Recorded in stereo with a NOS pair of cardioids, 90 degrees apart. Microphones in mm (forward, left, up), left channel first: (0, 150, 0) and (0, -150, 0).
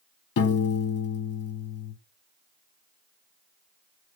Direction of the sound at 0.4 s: 55° left.